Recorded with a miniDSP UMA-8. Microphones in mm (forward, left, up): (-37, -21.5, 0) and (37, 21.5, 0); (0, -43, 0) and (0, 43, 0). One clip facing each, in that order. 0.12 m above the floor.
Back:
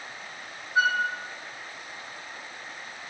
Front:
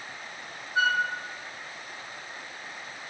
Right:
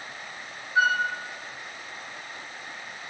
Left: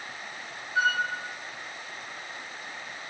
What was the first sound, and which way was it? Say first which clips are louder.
A flute: back 1 dB, right 3 dB; 110° right.